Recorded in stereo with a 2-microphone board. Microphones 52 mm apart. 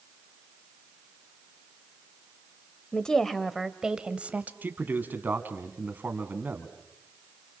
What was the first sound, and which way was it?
A woman speaking, 20° left (ahead or behind).